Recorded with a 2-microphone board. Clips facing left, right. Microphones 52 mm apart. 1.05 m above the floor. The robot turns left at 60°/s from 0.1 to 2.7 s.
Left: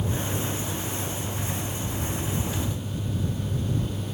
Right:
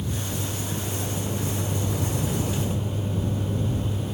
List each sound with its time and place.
0.0 s a vehicle: 30° left (ahead or behind); by 4.1 s 10° right (ahead or behind)